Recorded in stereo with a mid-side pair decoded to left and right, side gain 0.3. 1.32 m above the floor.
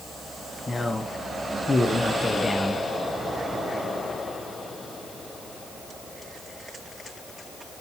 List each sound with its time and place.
0.7 s a man speaking: 25° left, 1.3 m